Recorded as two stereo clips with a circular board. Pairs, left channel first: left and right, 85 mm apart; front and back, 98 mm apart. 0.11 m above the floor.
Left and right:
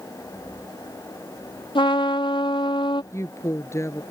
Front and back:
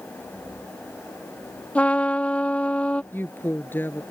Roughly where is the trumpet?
Left.